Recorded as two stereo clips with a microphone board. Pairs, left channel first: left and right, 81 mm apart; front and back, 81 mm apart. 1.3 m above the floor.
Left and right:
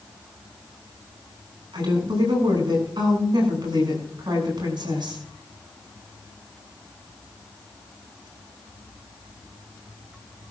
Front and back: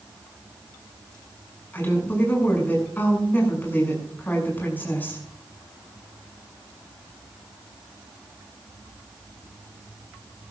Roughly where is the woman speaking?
Ahead right.